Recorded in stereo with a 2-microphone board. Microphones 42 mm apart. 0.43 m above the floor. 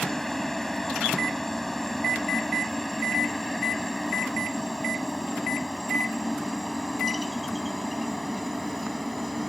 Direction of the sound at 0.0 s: 10° left (ahead or behind).